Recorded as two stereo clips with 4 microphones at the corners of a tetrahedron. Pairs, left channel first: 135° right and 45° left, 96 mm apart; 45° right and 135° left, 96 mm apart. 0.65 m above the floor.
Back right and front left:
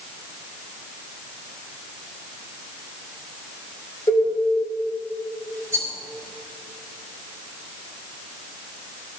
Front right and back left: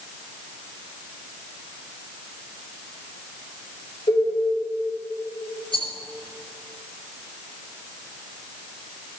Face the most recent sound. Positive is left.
turn(degrees=-20)